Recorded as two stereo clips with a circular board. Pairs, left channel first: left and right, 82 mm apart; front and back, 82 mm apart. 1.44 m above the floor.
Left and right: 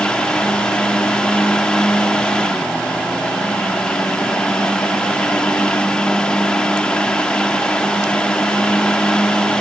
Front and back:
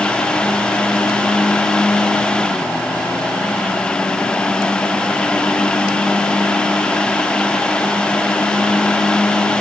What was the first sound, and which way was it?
Only background noise.